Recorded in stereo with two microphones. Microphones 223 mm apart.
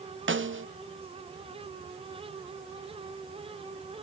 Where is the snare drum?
60° right (ahead or behind), 0.9 m.